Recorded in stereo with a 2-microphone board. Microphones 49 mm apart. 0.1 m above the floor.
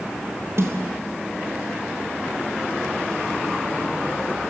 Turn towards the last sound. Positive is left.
turn(degrees=-60)  # may be behind; listen again after turning